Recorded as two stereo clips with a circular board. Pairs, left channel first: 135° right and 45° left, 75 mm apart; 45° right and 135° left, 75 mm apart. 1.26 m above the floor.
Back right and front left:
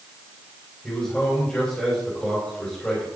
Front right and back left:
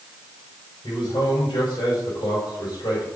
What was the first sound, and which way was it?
A man speaking, 60° right.